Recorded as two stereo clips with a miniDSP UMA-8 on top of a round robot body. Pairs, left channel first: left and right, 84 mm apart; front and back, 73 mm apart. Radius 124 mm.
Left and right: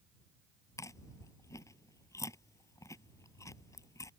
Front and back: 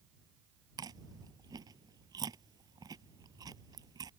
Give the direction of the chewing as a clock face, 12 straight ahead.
7 o'clock.